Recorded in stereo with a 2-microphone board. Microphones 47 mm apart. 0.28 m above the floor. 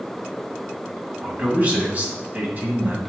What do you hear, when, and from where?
1.2 s a man speaking: 40° right (ahead or behind), 2.5 m